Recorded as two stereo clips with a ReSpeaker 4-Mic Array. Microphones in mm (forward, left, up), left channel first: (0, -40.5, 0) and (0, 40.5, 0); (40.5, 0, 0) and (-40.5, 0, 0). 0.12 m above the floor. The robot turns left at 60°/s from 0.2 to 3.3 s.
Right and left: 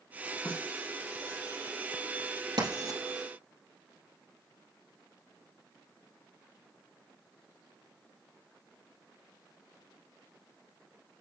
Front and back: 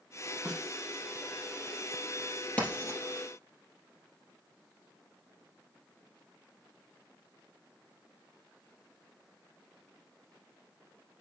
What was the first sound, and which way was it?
A snare drum, 110° right.